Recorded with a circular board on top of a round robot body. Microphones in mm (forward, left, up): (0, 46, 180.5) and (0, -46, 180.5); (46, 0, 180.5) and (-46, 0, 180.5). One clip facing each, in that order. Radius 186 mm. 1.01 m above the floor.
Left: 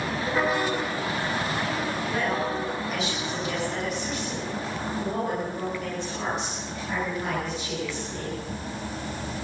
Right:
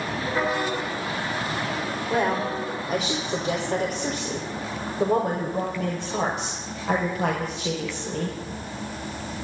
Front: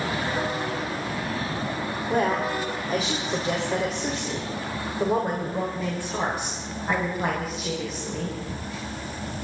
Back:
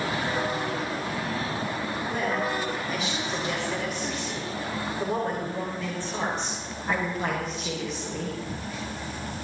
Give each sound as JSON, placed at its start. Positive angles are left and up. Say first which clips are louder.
{"t": 2.1, "sound": "a woman speaking", "louder": "right 5 dB, front 5 dB", "azimuth_deg": -40, "distance_m": 5.5}